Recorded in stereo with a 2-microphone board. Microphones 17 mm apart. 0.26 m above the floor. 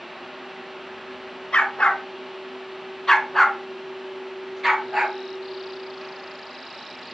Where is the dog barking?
80° left, 1.1 m; by 5.2 s 20° right (ahead or behind), 1.7 m.